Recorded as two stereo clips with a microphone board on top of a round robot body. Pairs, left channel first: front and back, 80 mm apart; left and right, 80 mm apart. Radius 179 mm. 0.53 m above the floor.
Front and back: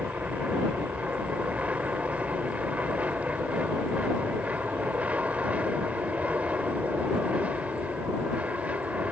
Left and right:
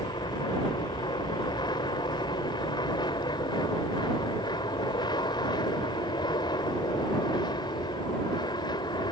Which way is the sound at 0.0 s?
105° left.